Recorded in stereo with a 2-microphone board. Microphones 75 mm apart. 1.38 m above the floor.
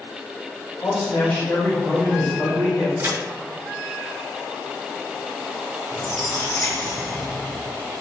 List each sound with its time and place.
0.8 s a man speaking: 50° left (ahead or behind), 1.2 m; by 2.9 s 60° left (ahead or behind), 3 m
3.0 s a crack: 30° right (ahead or behind), 1.5 m
5.9 s a squeak: 45° left (ahead or behind), 1.3 m